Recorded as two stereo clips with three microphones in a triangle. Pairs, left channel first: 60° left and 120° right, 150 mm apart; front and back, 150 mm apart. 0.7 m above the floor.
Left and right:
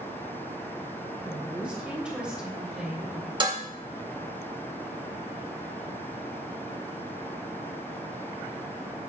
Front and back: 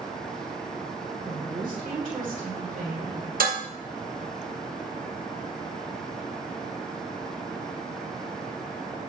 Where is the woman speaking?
160° left, 3.5 m; by 3.3 s 155° left, 1.7 m.